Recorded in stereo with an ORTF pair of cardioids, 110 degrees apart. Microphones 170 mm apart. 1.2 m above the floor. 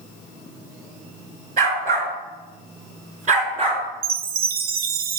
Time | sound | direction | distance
1.6 | a dog barking | 55° right | 6 m
4.0 | a chime | 60° right | 0.9 m